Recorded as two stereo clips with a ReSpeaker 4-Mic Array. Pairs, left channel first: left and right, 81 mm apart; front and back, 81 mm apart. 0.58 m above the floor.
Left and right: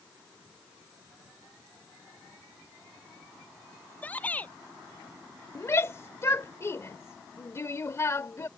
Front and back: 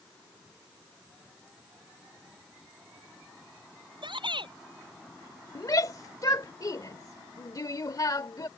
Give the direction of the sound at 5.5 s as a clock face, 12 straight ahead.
11 o'clock.